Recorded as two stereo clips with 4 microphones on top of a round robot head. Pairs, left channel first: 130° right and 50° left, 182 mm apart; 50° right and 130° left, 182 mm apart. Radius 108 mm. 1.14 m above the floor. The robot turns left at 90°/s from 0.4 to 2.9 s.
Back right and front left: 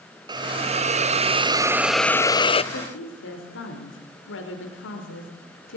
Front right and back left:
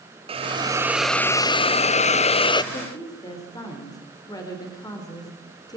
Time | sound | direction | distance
0.3 | a hiss | 100° left | 0.8 m
2.7 | a woman speaking | 105° right | 4.5 m